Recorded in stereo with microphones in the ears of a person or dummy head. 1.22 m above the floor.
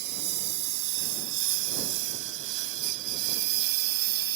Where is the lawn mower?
55° right (ahead or behind); by 4.4 s 50° right (ahead or behind).